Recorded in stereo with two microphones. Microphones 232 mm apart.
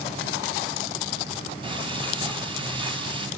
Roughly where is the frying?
Right.